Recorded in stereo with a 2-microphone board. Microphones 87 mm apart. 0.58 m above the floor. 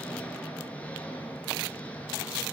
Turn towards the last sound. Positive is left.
turn(degrees=15)  # may be behind; listen again after turning